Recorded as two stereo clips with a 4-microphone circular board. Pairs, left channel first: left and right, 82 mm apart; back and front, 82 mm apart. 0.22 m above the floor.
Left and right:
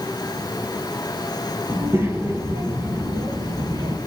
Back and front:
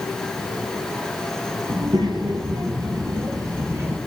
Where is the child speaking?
30° right, 2.5 m; by 4.0 s 60° right, 2 m.